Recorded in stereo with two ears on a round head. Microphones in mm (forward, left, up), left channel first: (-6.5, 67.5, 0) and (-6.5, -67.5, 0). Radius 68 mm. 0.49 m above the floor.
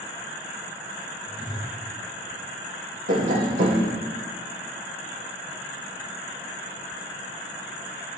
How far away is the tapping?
About 5.5 m.